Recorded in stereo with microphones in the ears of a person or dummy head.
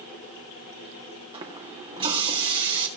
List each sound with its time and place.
1.3 s a running tap: 25° right (ahead or behind), 1.8 m